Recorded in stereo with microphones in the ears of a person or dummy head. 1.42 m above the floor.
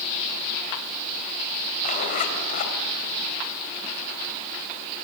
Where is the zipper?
45° left (ahead or behind), 3.5 m.